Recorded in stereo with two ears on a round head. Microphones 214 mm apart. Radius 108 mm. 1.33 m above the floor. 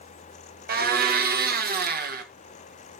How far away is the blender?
About 1.4 m.